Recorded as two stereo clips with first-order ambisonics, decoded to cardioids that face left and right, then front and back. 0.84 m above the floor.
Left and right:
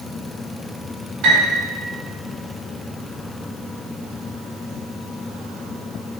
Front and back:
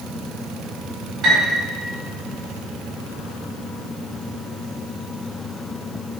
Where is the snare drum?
I don't hear a snare drum.